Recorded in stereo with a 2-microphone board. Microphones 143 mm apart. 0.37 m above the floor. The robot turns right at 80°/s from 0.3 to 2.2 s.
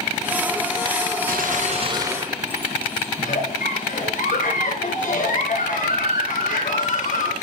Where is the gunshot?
85° right, 2 m; by 3.1 s 10° right, 2 m.